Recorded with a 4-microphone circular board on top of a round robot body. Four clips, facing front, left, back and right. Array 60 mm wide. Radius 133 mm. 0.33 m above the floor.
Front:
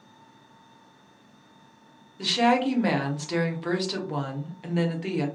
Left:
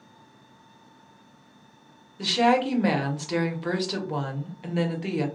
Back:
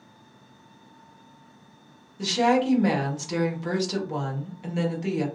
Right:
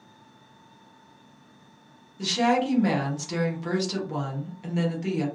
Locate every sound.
2.2 s a woman speaking: 50° left, 1.1 m